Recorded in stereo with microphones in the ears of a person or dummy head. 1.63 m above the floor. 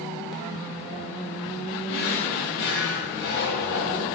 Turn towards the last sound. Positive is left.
turn(degrees=60)  # may be behind; listen again after turning